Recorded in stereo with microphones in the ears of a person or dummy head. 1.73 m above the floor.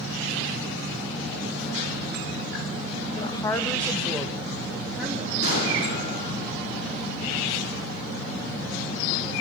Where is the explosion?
50° left (ahead or behind), 7 m.